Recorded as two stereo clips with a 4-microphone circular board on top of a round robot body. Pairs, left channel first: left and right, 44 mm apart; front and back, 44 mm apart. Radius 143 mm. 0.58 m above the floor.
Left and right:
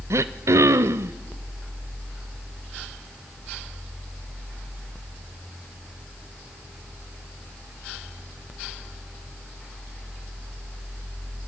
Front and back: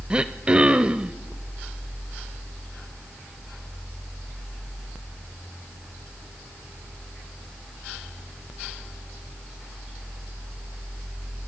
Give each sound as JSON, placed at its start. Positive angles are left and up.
{"t": 0.1, "sound": "throat clearing", "azimuth_deg": -110, "distance_m": 0.7}